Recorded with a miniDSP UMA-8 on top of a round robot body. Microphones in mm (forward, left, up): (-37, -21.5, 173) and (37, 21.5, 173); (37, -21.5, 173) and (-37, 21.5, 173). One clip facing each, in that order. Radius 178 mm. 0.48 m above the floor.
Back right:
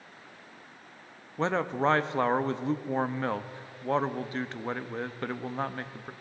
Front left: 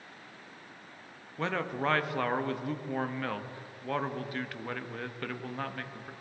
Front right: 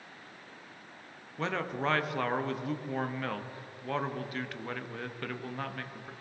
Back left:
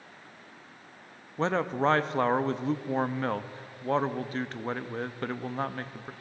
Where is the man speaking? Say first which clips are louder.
Back right 5 dB, back left 6 dB; 170° left, 0.9 m.